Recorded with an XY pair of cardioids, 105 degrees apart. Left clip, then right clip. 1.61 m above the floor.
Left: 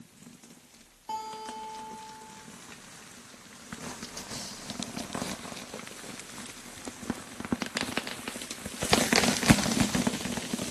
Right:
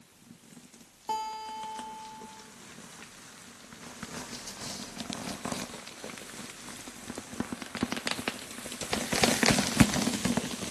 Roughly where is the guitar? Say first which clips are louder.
Right 2 dB; ahead right.